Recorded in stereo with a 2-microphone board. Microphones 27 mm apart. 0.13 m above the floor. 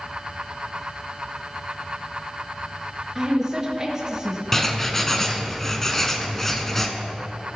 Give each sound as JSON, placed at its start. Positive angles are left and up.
{"t": 3.1, "sound": "a woman speaking", "side_deg": -25, "distance_m": 2.0}
{"t": 4.5, "sound": "writing", "side_deg": 15, "distance_m": 0.7}